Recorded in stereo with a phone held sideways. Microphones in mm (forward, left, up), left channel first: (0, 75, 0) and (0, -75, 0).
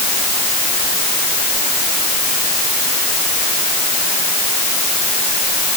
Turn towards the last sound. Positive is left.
No sound to turn to.